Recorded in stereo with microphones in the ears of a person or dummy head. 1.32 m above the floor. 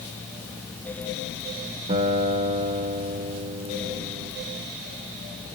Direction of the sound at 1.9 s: 40° right (ahead or behind).